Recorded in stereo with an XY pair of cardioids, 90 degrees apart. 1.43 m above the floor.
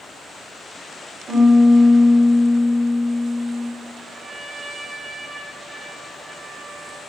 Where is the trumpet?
30° right, 1.8 m.